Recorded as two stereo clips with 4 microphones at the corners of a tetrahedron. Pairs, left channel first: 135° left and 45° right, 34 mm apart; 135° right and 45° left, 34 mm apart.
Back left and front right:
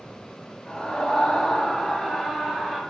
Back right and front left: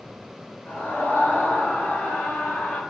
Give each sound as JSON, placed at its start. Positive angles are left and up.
{"t": 0.7, "sound": "a scream", "azimuth_deg": -155, "distance_m": 4.5}